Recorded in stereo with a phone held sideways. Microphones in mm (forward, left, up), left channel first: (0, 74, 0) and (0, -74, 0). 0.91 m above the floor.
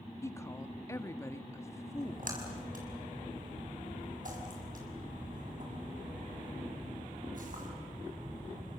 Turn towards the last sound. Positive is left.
turn(degrees=-65)  # may be behind; listen again after turning